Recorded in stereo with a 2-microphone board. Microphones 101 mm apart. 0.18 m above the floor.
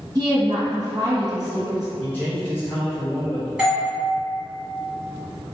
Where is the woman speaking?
35° right (ahead or behind), 1.9 m.